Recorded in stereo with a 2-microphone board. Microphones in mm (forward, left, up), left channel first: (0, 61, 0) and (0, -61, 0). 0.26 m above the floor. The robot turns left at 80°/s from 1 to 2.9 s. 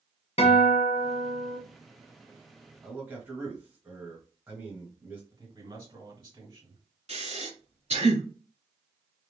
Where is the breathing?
65° right (ahead or behind), 2 m.